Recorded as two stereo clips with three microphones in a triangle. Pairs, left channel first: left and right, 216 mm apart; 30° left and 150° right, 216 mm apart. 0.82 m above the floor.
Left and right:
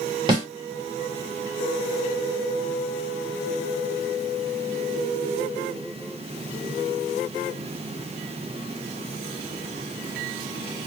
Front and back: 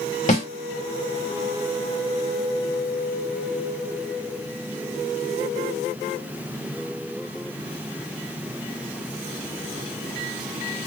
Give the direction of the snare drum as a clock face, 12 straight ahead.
1 o'clock.